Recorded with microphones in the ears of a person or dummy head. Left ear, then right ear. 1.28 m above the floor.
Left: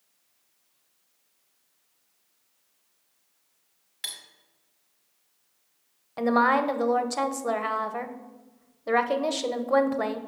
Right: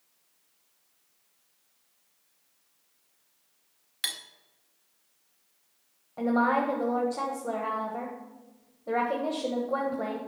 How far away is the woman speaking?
About 1.1 m.